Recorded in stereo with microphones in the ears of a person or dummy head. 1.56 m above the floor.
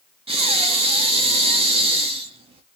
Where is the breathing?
35° right (ahead or behind), 0.8 m.